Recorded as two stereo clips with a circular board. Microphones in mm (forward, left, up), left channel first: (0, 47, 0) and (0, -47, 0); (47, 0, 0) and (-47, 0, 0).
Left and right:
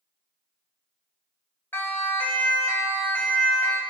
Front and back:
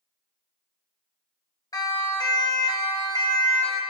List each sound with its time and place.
1.7 s a siren: 30° left, 2 m